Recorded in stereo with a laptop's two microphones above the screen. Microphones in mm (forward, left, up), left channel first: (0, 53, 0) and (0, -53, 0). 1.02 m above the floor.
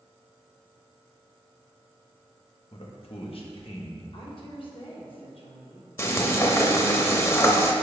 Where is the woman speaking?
55° left (ahead or behind), 1.3 m.